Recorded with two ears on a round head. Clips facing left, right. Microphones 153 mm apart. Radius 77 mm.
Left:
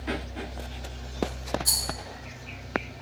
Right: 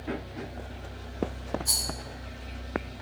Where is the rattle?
60° left (ahead or behind), 1.2 m.